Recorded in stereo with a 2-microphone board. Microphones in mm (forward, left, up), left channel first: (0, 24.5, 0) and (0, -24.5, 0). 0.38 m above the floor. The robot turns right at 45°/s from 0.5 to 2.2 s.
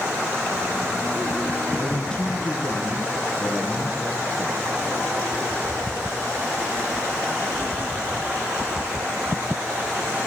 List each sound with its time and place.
1.8 s a man speaking: 5° right (ahead or behind), 4.5 m; by 4.7 s 15° left (ahead or behind), 4.5 m